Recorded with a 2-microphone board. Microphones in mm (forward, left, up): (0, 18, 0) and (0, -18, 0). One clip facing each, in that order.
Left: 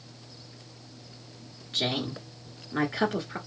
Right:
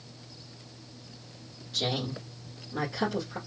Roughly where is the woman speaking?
Left.